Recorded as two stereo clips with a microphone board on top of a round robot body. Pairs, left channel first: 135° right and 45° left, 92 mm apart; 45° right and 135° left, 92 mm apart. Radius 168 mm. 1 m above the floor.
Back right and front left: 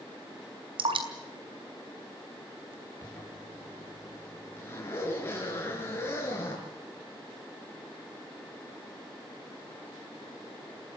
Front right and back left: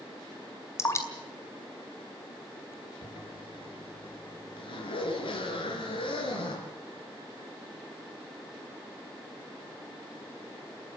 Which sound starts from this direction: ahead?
Dripping, at 0.8 s.